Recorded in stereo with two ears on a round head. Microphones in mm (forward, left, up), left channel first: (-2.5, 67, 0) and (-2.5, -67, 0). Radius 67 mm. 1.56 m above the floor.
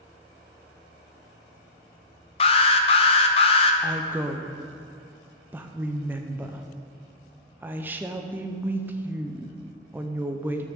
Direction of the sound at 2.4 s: 40° left (ahead or behind).